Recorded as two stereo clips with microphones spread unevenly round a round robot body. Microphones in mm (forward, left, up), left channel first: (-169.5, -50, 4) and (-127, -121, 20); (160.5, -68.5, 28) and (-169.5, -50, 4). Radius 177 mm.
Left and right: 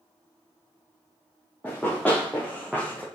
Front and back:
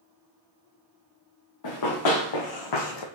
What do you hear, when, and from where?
1.6 s running footsteps: 35° left, 1.9 m; by 3.0 s 20° left, 1.0 m